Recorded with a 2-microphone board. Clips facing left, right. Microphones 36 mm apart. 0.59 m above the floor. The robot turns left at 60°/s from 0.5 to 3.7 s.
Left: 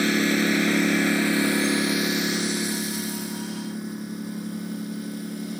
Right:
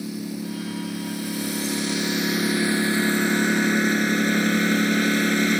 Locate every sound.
0.0 s a lawn mower: 105° left; by 5.6 s 90° right